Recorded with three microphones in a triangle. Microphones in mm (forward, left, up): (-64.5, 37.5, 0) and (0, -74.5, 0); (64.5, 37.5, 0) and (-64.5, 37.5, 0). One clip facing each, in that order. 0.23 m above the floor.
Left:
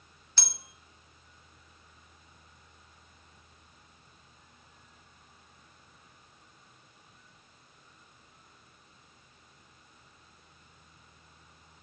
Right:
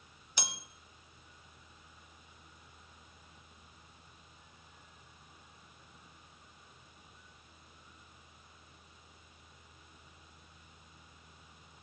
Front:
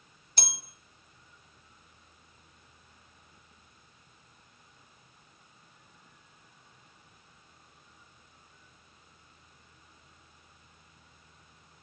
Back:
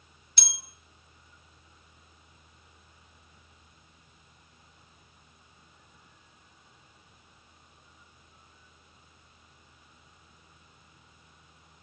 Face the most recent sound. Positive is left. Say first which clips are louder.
# right 2 dB, front 5 dB
turn(degrees=10)